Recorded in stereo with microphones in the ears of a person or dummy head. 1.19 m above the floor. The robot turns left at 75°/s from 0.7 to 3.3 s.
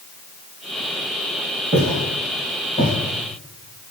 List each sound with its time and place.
1.7 s footsteps: 40° right (ahead or behind), 1.7 m; by 2.9 s 5° left (ahead or behind), 1.3 m